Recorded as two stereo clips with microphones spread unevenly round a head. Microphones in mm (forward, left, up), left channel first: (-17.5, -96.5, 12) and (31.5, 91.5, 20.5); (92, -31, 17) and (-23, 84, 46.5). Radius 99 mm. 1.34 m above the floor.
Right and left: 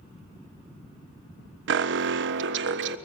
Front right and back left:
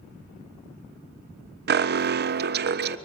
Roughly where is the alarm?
Left.